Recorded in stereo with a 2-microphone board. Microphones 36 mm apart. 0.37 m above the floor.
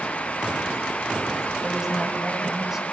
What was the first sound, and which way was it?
A woman speaking, 15° right (ahead or behind).